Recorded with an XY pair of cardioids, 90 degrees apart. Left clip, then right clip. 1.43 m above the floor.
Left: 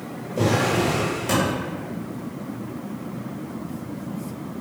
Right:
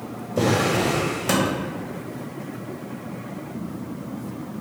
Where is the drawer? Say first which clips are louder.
Even; 45° right, 1.6 m.